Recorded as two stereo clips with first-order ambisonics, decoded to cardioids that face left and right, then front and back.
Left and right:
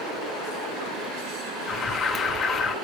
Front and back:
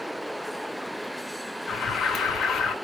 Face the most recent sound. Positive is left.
turn(degrees=40)